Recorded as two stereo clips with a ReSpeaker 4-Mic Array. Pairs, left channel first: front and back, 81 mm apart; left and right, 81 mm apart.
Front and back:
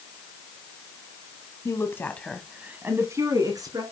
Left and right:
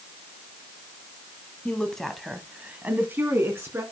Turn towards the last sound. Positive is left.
turn(degrees=-150)